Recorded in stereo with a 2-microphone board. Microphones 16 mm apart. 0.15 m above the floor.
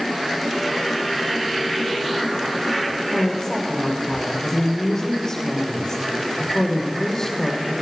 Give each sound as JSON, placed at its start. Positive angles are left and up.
{"t": 3.1, "sound": "a woman speaking", "side_deg": 30, "distance_m": 6.5}